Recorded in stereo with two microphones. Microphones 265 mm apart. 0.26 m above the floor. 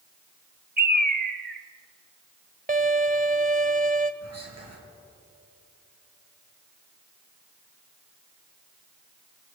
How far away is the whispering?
About 5 m.